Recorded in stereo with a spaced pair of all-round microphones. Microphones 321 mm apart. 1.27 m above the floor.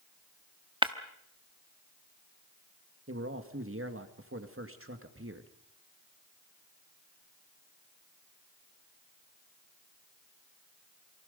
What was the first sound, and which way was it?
Breaking glass, 15° right (ahead or behind).